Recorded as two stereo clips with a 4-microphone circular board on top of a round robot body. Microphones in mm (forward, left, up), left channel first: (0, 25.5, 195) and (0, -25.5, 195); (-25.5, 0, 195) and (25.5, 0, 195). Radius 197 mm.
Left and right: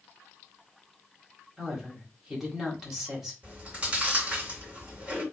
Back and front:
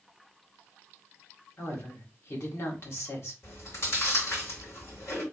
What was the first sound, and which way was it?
A woman speaking, 175° right.